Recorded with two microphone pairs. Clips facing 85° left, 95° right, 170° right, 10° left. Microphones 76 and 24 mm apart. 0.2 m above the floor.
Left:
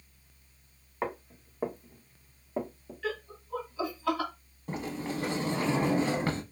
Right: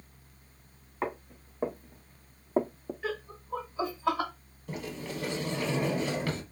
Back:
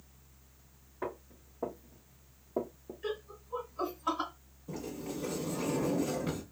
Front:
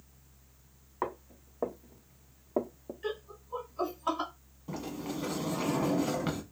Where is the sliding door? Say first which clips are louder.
Left 3 dB, front 2 dB; 40° left, 0.6 m.